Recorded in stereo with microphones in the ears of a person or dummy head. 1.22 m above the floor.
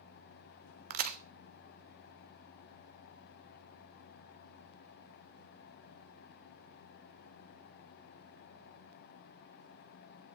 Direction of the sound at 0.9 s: 50° right (ahead or behind).